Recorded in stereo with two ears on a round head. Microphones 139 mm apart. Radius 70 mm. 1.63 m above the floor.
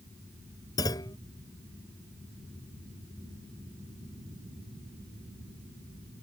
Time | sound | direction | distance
0.8 | a clunk | 20° left (ahead or behind) | ?